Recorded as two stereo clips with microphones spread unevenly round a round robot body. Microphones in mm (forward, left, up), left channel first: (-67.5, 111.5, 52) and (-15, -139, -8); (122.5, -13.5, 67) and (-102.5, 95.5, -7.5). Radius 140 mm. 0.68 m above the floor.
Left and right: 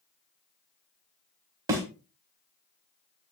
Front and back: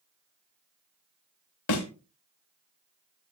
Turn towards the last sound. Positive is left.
turn(degrees=0)